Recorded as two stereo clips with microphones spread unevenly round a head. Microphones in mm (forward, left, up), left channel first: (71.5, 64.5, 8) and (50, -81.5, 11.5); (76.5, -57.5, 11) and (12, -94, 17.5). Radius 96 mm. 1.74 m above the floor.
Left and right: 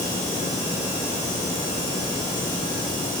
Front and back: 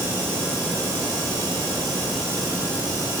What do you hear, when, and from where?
Only background noise.